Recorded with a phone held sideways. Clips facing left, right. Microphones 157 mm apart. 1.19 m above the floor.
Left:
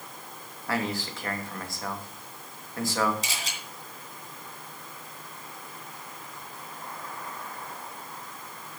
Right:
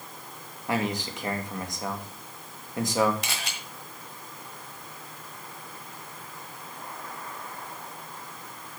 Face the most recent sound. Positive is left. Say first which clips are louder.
# right 1 dB
turn(degrees=-65)  # may be behind; listen again after turning